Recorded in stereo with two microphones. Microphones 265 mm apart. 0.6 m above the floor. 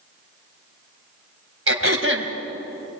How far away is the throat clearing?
About 2.5 m.